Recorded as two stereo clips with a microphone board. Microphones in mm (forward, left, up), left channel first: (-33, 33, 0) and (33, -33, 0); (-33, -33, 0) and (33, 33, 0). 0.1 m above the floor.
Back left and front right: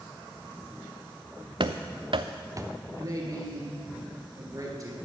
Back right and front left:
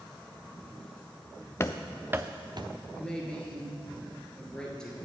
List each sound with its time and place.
1.6 s running footsteps: 75° right, 0.6 m; by 2.7 s 10° left, 0.8 m
2.9 s a man speaking: 55° right, 2 m